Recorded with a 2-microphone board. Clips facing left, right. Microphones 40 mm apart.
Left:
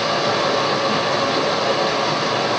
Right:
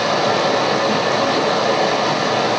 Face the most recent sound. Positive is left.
turn(degrees=-65)  # may be behind; listen again after turning